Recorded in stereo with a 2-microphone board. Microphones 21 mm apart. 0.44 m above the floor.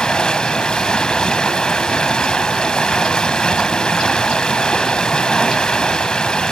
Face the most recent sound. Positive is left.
turn(degrees=35)  # may be behind; listen again after turning